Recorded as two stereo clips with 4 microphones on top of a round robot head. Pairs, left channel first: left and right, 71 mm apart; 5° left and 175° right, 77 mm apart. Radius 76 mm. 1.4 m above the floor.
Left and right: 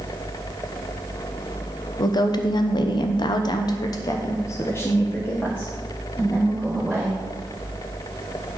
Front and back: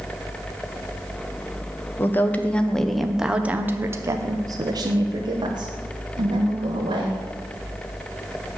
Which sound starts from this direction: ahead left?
A woman speaking, at 2.0 s.